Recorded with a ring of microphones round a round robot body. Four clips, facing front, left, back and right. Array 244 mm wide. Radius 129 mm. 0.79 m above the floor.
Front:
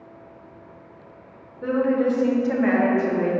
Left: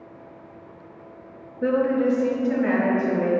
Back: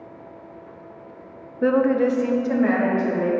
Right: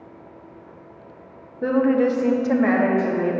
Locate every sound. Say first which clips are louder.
1.6 s a woman speaking: right 2 dB, back 3 dB; straight behind, 0.6 m; by 3.3 s 75° right, 1.7 m